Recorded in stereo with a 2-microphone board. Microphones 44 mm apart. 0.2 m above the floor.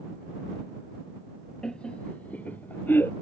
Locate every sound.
1.6 s laughter: 20° left (ahead or behind); by 3.1 s 50° left (ahead or behind)